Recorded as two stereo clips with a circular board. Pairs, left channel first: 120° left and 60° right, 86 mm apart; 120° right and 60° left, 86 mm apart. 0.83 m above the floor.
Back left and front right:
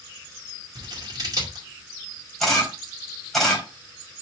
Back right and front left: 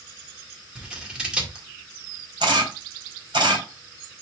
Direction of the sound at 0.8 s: 20° right.